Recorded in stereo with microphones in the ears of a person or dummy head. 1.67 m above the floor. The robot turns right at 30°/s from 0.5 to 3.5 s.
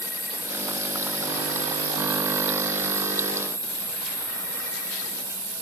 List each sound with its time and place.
0.0 s an insect: 160° right, 1.0 m; by 5.6 s 70° right, 1.0 m